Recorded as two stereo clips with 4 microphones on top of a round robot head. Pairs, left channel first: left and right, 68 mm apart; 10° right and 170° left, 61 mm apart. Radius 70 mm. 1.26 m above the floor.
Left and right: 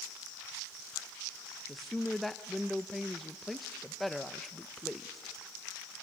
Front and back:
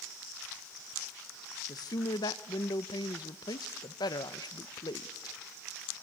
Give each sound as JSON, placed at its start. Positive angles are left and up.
{"t": 1.7, "sound": "a woman speaking", "azimuth_deg": 0, "distance_m": 0.8}